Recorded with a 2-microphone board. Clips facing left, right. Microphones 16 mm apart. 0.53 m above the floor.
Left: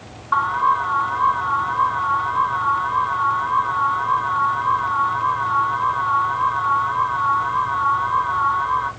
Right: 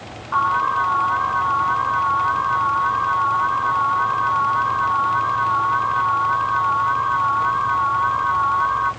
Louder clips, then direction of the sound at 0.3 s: Left 1 dB; 30° left (ahead or behind).